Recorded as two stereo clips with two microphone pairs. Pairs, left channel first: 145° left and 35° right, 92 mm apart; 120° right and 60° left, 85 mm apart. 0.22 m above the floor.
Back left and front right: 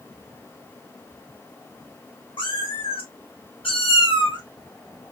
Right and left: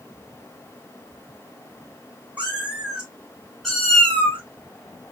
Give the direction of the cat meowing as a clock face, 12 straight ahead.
8 o'clock.